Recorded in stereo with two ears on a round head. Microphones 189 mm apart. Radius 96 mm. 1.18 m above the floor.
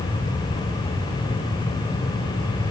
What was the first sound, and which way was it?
Only background noise.